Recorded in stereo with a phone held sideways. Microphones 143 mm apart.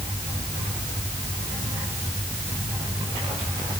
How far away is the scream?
I don't hear a scream.